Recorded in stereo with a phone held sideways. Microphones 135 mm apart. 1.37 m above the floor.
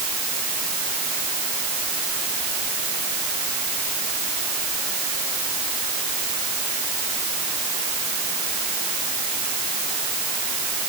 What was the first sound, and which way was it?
Only background noise.